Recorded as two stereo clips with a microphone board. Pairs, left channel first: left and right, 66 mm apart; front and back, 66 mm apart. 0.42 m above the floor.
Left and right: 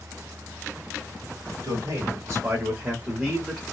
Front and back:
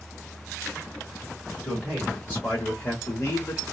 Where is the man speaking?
75° right, 1.7 m; by 3.6 s 5° left, 1.1 m.